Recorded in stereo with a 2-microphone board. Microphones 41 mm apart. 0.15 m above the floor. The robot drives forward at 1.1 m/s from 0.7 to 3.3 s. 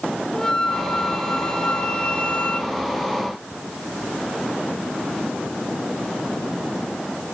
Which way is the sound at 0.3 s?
15° left (ahead or behind).